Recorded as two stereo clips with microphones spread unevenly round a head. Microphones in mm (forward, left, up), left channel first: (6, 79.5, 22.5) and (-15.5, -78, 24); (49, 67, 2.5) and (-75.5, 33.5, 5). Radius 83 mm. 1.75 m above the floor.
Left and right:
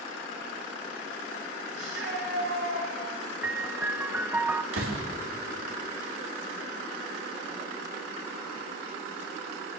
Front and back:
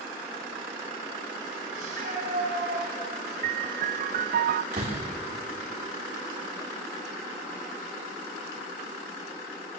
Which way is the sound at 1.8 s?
110° right.